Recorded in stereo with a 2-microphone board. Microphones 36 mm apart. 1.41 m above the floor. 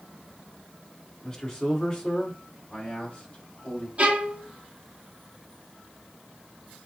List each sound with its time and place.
1.2 s a man speaking: 15° left (ahead or behind), 1.3 m; by 3.9 s 35° left (ahead or behind), 3 m
4.0 s a violin: 45° right (ahead or behind), 1.2 m